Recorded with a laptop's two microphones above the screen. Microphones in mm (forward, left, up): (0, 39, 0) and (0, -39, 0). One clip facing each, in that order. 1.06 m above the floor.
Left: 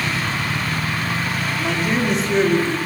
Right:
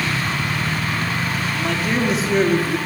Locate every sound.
1.6 s a man speaking: 5° left (ahead or behind), 3 m; by 2.8 s 10° right (ahead or behind), 2.5 m